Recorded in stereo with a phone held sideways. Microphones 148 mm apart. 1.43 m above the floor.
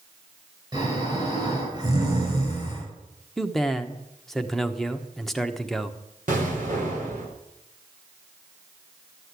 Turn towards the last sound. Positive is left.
turn(degrees=-60)  # may be behind; listen again after turning